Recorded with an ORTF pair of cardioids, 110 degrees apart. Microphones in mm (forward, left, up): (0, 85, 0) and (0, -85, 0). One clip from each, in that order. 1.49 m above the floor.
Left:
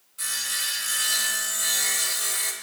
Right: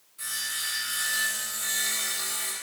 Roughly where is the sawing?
Ahead left.